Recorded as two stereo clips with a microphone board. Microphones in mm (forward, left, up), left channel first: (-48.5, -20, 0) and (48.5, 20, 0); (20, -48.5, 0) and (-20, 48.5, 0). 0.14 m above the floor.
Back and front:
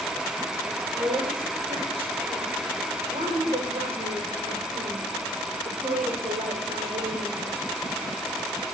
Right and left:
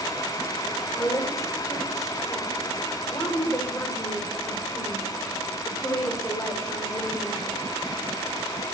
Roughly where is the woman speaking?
Ahead.